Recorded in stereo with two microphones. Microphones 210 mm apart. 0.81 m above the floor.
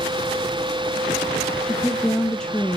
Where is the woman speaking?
5° left (ahead or behind), 0.5 m.